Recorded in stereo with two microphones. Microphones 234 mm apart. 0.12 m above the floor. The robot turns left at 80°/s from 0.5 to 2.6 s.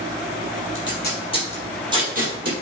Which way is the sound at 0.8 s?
60° left (ahead or behind).